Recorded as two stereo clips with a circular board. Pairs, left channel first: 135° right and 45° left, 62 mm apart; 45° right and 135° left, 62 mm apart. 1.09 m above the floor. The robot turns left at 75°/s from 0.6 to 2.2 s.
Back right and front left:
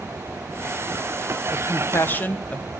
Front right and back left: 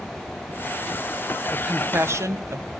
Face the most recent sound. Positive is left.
turn(degrees=165)